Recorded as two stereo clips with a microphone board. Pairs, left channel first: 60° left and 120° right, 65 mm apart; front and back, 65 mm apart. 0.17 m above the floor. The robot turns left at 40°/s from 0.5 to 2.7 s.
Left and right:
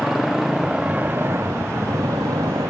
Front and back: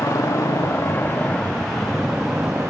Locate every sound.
0.0 s a motorcycle: 35° right; by 2.7 s 125° right